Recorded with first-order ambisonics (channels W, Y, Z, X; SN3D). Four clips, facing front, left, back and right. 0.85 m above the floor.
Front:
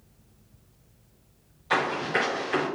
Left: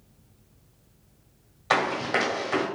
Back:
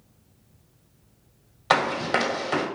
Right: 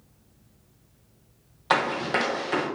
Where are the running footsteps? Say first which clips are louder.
Even, back 3 dB; 170° right, 1.5 m.